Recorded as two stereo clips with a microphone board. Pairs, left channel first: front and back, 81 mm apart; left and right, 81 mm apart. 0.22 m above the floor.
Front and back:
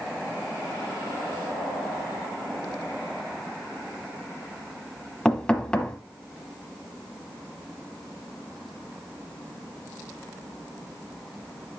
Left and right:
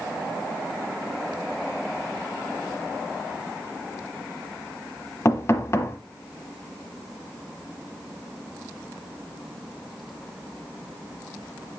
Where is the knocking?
70° left, 1.1 m.